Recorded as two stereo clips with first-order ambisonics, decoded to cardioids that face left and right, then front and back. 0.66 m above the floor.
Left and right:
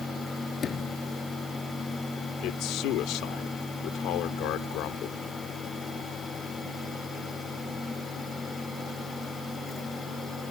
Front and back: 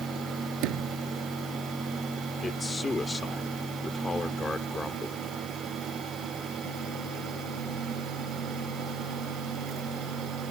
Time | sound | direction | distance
0.6 | a sliding door | 155° left | ?
2.4 | a man speaking | 75° left | ?